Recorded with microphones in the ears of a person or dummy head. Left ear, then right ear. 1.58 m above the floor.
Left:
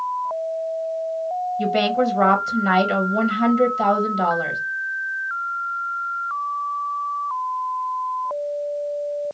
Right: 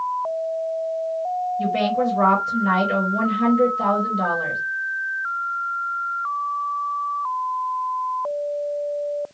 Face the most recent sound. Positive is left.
turn(degrees=20)  # may be behind; listen again after turning